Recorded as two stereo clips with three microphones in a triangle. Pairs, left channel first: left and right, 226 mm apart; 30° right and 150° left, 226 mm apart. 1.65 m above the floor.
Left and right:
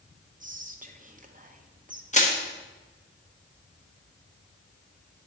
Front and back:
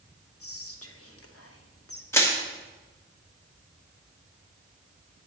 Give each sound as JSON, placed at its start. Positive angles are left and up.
{"t": 0.4, "sound": "whispering", "azimuth_deg": -35, "distance_m": 0.9}
{"t": 2.1, "sound": "crushing", "azimuth_deg": 45, "distance_m": 1.1}